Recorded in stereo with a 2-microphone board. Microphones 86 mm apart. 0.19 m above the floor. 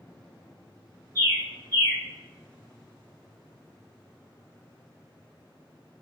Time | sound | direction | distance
1.1 | a bird | 45° right (ahead or behind) | 1.9 m